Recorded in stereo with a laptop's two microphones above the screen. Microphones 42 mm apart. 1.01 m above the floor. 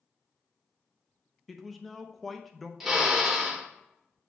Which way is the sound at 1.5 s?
Centre (ahead or behind).